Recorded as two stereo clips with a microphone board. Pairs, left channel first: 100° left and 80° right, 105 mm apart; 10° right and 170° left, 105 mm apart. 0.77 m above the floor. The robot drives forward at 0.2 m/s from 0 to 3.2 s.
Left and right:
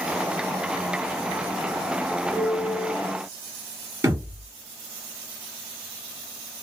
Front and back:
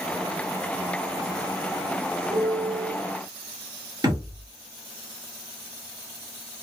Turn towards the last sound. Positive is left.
turn(degrees=-145)